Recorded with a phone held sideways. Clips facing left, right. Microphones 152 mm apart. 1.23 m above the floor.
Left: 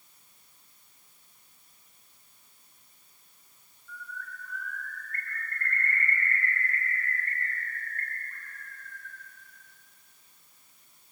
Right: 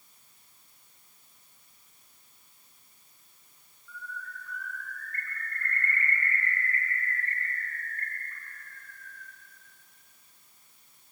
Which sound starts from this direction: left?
A bird, at 3.9 s.